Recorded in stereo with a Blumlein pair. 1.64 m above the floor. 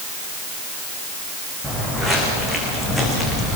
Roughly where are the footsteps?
Ahead.